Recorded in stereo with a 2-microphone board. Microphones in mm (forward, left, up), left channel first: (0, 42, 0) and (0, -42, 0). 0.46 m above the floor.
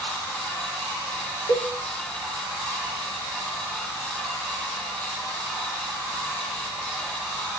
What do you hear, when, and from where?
1.5 s a cowbell: 70° left (ahead or behind), 2.5 m